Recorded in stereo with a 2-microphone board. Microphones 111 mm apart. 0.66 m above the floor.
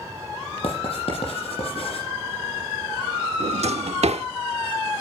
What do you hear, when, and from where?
0.6 s writing: 60° left (ahead or behind), 7 m
3.4 s a drawer: 75° right (ahead or behind), 1.0 m